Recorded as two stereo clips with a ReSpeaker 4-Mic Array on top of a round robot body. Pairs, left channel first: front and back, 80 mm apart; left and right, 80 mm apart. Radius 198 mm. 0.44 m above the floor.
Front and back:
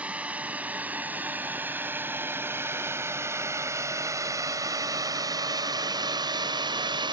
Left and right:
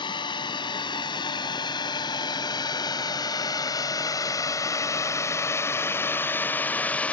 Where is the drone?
105° left; by 7.1 s 165° left.